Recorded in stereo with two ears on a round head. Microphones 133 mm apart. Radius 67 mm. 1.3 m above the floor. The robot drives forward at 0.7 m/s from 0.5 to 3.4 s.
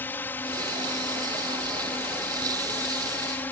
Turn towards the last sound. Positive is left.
turn(degrees=15)  # may be behind; listen again after turning